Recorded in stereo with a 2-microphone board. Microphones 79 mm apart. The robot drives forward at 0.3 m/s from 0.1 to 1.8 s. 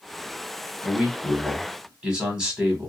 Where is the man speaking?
15° right (ahead or behind), 1.0 m.